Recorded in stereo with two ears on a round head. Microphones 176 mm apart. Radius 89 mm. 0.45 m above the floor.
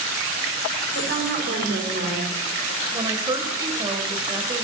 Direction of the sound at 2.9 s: 25° right (ahead or behind).